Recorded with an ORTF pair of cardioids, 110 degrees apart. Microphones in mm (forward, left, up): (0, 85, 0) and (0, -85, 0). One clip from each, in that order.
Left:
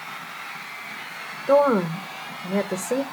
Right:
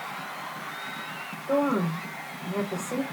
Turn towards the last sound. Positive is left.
turn(degrees=65)